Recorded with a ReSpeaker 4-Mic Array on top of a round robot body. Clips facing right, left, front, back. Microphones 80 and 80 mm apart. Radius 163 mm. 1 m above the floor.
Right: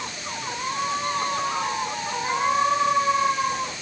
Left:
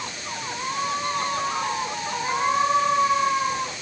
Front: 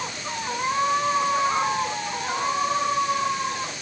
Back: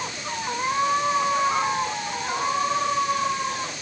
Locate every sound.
Only background noise.